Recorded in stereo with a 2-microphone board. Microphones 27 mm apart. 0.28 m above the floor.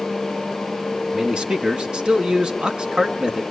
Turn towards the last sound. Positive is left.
turn(degrees=-40)  # may be behind; listen again after turning